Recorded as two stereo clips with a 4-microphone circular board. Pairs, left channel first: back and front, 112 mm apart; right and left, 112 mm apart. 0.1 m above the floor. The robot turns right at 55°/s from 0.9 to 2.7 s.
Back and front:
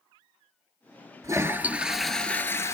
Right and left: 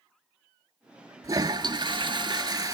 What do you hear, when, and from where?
1.2 s a toilet flushing: 45° left, 0.6 m; by 2.8 s 130° left, 0.6 m